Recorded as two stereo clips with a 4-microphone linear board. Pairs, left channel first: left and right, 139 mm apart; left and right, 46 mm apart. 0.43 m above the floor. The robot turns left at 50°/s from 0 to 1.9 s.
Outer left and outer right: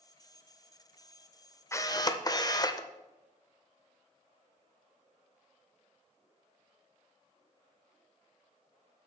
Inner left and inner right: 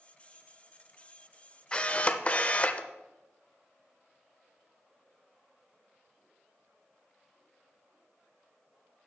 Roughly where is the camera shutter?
Centre.